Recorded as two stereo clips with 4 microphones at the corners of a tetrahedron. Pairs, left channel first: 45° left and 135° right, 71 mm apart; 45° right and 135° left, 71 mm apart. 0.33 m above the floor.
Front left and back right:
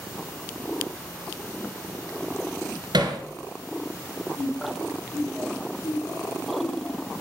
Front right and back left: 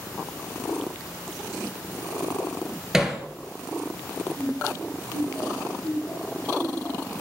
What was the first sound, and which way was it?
Hammering, 140° right.